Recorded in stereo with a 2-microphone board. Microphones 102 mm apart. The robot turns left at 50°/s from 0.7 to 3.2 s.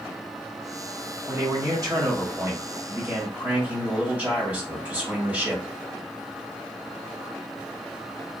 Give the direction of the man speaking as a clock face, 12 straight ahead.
2 o'clock.